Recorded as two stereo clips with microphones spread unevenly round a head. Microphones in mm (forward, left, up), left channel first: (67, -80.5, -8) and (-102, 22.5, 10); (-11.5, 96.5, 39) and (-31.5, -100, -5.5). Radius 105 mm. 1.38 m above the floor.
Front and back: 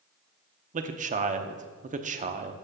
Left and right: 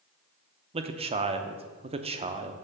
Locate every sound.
0.7 s a man speaking: 160° right, 0.7 m